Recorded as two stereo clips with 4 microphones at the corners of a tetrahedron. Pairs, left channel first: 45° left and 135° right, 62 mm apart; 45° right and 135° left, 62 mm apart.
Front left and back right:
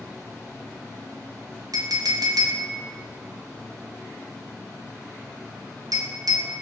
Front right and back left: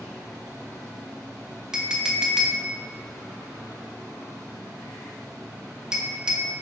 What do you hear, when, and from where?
1.7 s a clink: 145° right, 0.5 m